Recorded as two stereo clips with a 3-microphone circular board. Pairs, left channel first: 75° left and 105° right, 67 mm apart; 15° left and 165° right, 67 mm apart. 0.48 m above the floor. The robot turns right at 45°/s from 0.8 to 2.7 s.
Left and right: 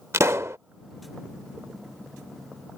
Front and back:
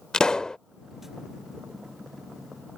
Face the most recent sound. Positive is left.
turn(degrees=20)